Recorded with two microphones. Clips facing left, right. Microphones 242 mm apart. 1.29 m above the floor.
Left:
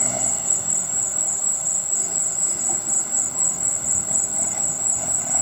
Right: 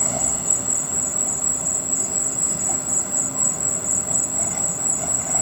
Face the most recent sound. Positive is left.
turn(degrees=-80)